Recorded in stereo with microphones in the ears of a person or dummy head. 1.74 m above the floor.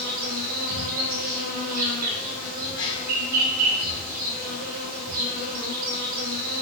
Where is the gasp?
25° left (ahead or behind), 1.4 m.